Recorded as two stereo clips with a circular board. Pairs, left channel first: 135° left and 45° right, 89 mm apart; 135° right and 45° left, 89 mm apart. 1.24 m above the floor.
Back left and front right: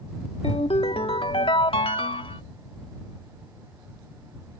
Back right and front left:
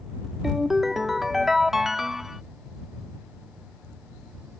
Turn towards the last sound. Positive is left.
turn(degrees=130)